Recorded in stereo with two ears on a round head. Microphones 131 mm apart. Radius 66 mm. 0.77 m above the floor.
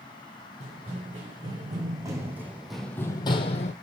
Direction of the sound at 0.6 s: 40° right (ahead or behind).